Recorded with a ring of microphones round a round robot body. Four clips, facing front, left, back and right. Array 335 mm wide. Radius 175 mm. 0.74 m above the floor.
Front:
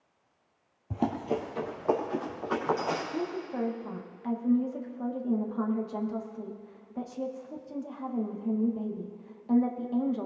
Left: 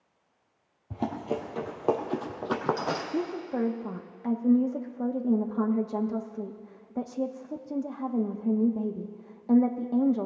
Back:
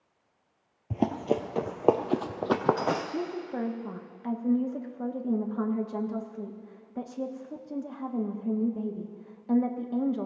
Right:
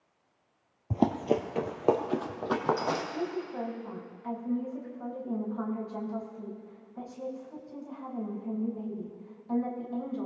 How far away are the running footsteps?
About 0.9 m.